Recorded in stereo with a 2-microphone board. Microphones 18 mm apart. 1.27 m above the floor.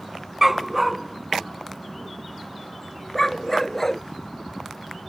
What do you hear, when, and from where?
0.4 s a dog barking: 20° right (ahead or behind); by 4.0 s 15° left (ahead or behind)